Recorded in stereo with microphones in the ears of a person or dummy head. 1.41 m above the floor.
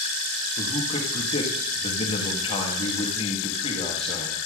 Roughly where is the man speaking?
Left.